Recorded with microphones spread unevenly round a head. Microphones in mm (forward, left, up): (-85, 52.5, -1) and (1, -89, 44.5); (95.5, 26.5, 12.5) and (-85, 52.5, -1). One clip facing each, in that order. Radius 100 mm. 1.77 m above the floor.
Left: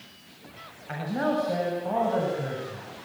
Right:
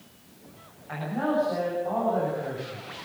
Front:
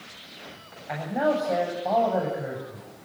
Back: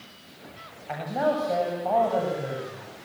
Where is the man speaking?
75° left, 8 m.